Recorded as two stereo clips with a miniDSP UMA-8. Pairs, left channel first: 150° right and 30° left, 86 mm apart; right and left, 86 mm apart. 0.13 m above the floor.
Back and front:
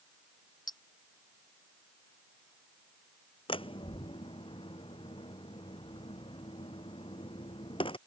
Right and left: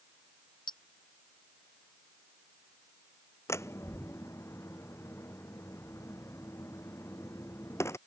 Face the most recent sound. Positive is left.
turn(degrees=-150)